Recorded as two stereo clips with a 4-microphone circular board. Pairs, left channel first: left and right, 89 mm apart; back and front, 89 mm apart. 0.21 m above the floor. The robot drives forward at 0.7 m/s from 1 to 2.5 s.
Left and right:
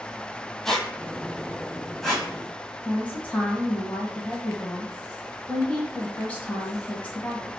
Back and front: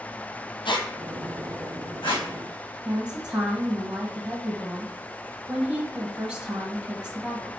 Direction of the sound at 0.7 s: 175° left.